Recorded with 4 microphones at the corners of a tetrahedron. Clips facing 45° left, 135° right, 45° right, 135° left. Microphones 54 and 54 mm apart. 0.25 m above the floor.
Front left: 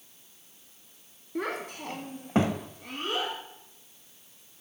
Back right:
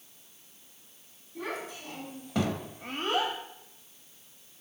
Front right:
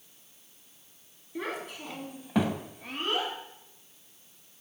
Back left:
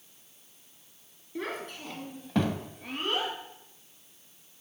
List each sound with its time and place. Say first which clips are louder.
1.4 s a child speaking: front left 4 dB, even; 35° left, 1.9 m; by 3.3 s 140° right, 1.2 m